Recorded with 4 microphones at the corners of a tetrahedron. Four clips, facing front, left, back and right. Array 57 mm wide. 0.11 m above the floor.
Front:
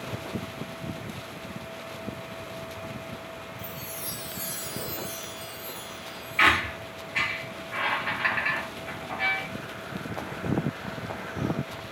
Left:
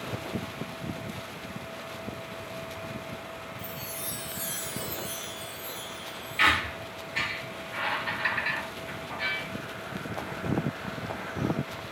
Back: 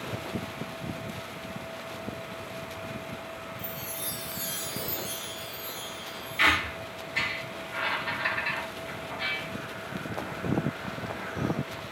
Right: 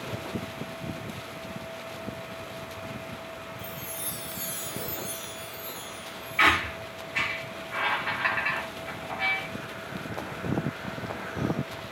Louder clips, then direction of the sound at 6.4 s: Right 2 dB, front 3 dB; 40° right.